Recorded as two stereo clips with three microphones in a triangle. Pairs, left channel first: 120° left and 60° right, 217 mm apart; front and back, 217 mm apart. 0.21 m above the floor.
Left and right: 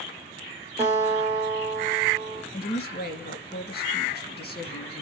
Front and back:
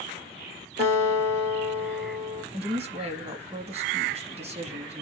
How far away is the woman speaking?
About 1.5 m.